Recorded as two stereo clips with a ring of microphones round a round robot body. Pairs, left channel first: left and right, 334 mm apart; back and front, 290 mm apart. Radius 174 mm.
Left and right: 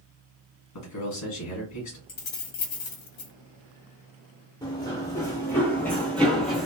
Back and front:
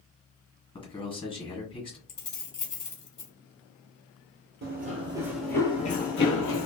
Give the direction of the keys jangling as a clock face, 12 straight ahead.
8 o'clock.